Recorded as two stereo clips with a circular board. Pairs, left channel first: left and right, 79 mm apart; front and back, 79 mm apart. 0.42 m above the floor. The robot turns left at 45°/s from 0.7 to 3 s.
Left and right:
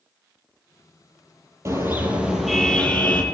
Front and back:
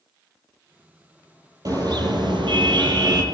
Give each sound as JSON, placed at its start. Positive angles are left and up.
{"t": 1.6, "sound": "a car horn", "azimuth_deg": -145, "distance_m": 6.5}